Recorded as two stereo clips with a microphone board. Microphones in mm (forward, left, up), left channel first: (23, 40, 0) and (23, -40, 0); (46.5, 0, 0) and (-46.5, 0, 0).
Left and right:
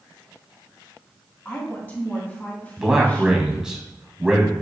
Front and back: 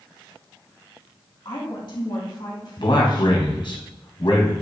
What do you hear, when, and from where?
1.4 s a woman speaking: 20° left, 2.5 m
2.8 s a man speaking: 10° right, 2 m